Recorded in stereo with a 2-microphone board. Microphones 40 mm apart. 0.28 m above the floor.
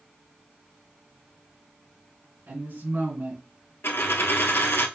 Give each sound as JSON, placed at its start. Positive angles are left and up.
{"t": 2.5, "sound": "a woman speaking", "side_deg": -55, "distance_m": 3.0}
{"t": 3.8, "sound": "a dropped coin", "side_deg": 85, "distance_m": 0.9}